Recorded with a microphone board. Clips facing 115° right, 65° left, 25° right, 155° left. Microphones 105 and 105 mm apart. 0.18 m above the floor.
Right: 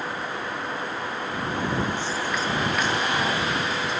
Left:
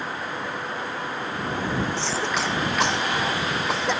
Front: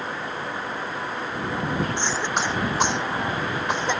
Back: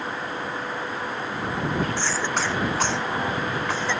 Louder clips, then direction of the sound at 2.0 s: Left 1 dB, even; 50° left.